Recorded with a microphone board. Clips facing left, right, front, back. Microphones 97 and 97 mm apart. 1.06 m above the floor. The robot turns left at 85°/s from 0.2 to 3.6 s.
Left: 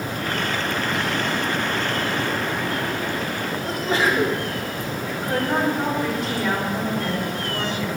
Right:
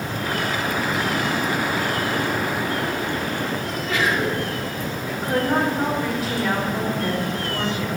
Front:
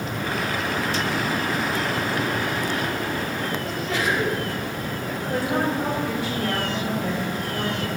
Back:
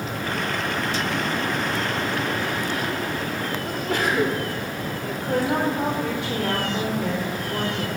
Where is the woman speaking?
Straight behind, 4.5 m.